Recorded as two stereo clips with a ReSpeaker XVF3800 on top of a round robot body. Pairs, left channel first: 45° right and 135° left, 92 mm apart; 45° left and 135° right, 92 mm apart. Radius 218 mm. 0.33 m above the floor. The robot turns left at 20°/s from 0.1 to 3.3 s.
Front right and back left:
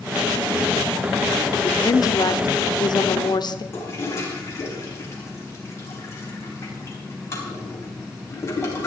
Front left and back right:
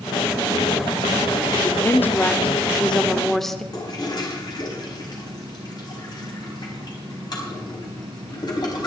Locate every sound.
1.5 s a woman speaking: 5° right, 1.5 m; by 3.6 s 40° right, 1.5 m
3.7 s a toilet flushing: 10° left, 4 m